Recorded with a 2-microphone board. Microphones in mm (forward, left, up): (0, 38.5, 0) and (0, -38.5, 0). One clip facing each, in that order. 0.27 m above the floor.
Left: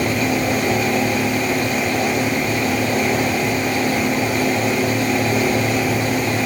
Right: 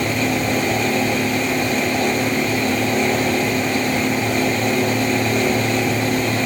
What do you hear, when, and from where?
Only background noise.